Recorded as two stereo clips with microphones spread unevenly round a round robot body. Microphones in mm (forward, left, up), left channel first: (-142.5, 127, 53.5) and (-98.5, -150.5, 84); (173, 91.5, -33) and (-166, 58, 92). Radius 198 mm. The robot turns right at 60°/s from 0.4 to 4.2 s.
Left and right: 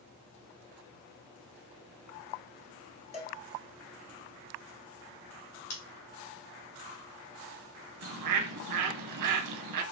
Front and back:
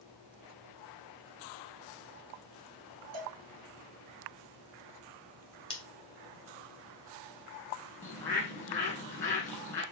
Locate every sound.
3.1 s a cowbell: 165° left, 1.3 m; by 3.4 s straight behind, 1.3 m
5.7 s scissors: 60° left, 1.8 m
8.0 s a bird: 80° right, 0.5 m